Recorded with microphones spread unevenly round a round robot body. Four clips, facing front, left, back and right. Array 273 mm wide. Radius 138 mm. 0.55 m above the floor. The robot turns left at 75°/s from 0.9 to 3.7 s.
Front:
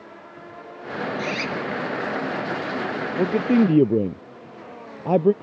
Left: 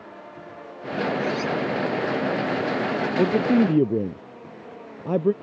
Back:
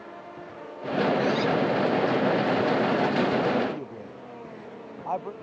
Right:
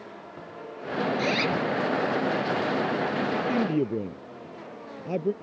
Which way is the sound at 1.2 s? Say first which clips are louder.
Left 1 dB, back 4 dB; 80° right.